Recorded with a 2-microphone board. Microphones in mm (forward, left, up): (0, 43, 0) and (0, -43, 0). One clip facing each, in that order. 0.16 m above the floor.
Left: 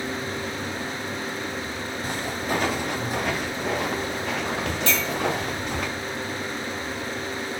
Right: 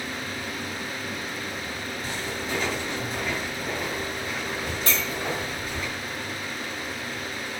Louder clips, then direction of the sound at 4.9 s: Left 2 dB; 40° right (ahead or behind).